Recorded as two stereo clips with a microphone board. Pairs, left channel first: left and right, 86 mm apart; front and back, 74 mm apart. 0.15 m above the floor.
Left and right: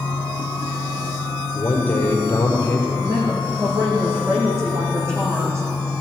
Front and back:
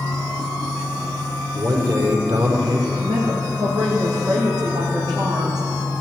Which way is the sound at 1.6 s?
150° left.